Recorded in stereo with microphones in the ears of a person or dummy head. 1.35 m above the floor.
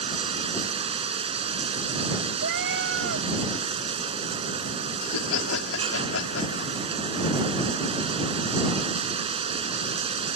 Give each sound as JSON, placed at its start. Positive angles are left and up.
{"t": 0.0, "sound": "running water", "side_deg": -35}
{"t": 2.4, "sound": "a cat meowing", "side_deg": -70}
{"t": 5.0, "sound": "laughter", "side_deg": 90}